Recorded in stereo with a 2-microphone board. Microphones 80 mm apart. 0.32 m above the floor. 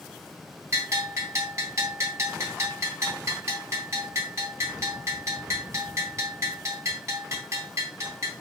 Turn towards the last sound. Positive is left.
turn(degrees=-40)  # may be behind; listen again after turning